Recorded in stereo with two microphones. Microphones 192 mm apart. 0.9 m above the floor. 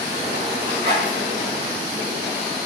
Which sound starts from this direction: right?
A zipper, at 0.6 s.